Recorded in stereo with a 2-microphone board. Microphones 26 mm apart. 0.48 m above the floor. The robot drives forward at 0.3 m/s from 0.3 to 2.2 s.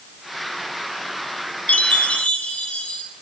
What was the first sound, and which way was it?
A chime, 55° left (ahead or behind).